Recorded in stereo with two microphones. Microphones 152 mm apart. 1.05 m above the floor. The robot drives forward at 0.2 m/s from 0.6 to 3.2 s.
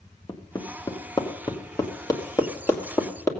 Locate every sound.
0.3 s hammering: 30° left (ahead or behind), 1.2 m; by 3.3 s 20° left (ahead or behind), 1.6 m